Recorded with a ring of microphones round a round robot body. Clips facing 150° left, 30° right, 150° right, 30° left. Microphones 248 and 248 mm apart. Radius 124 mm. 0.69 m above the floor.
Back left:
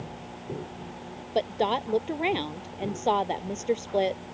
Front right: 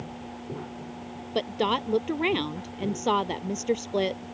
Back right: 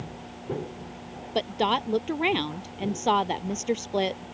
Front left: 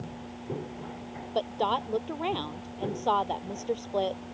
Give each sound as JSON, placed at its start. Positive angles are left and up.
{"t": 1.4, "sound": "a woman speaking", "azimuth_deg": -100}